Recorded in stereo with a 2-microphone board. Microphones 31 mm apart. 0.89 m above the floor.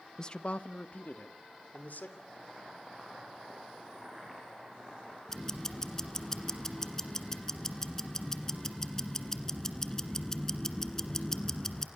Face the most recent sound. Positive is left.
turn(degrees=20)  # may be behind; listen again after turning